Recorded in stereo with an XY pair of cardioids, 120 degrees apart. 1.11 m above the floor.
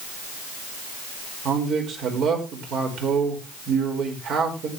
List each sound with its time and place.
1.4 s a man speaking: 65° right, 4.5 m